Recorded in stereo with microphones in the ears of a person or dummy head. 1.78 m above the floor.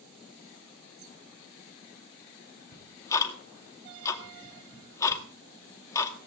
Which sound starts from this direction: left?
Ticking, at 2.7 s.